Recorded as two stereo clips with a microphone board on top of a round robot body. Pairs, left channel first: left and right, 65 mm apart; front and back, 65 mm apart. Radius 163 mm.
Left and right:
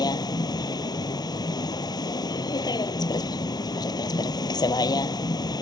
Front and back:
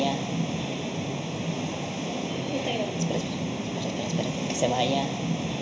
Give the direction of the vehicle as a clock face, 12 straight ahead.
9 o'clock.